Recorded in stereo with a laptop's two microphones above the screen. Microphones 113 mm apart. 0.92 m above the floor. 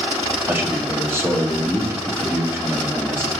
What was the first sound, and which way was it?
A man speaking, 20° right (ahead or behind).